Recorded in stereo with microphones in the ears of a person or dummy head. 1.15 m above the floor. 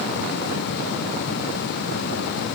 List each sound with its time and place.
Only background noise.